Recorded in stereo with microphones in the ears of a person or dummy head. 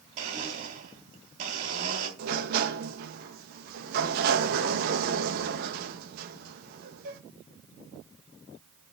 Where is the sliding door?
55° right (ahead or behind), 1.3 m.